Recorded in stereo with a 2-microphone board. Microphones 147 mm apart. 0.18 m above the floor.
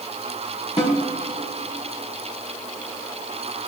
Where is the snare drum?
45° left (ahead or behind), 5.5 m.